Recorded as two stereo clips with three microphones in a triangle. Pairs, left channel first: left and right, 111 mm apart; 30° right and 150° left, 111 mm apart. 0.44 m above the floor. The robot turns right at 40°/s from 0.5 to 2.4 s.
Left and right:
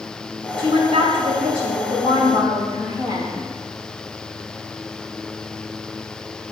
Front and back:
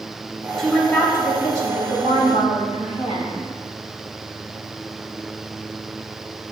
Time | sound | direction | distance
0.6 | a woman speaking | 115° right | 2.5 m